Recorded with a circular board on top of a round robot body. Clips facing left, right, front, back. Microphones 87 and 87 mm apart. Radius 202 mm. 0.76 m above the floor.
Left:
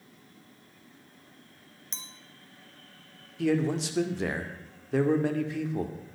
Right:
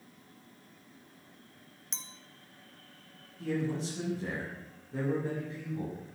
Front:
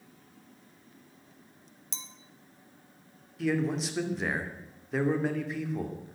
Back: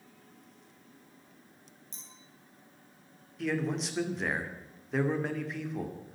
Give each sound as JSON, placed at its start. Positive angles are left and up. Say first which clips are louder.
{"t": 1.9, "sound": "a clink", "louder": "left 1 dB, front 12 dB", "azimuth_deg": 0, "distance_m": 1.3}
{"t": 3.4, "sound": "a man speaking", "louder": "left 7 dB, front 3 dB", "azimuth_deg": 90, "distance_m": 2.5}